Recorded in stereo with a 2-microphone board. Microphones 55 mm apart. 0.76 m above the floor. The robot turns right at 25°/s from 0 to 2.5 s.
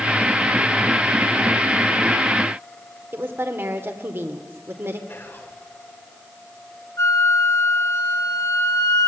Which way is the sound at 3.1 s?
45° right (ahead or behind).